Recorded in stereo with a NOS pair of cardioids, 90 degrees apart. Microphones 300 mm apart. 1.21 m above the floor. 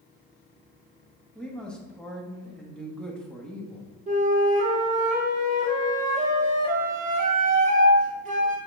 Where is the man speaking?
5° left, 2 m.